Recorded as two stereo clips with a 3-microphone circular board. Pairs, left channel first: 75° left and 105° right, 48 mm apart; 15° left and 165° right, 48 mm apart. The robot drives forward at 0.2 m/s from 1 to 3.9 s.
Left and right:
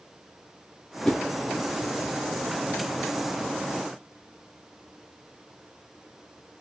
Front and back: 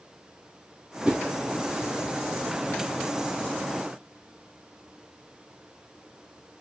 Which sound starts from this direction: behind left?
A whoosh, at 1.1 s.